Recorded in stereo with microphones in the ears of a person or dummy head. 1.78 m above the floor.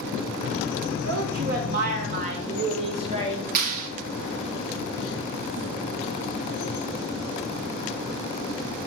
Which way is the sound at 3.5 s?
45° right (ahead or behind).